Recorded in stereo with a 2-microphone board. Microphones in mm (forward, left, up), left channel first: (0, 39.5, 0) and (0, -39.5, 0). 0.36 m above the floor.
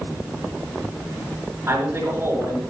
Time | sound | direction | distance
1.7 | a man speaking | 35° right (ahead or behind) | 5 m